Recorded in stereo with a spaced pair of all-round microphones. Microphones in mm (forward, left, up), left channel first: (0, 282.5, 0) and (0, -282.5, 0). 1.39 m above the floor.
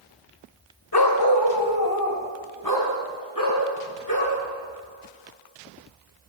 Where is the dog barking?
40° left (ahead or behind), 1.8 m; by 4.4 s 35° left (ahead or behind), 7 m.